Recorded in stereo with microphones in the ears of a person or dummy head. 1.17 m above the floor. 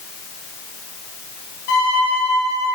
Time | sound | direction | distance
1.7 | a violin | 55° left (ahead or behind) | 1.0 m